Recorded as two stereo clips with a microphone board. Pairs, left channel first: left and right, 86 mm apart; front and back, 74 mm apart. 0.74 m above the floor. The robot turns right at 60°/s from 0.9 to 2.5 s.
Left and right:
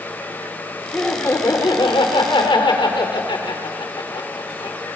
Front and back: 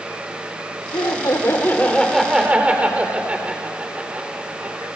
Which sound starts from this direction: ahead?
Laughter, at 0.9 s.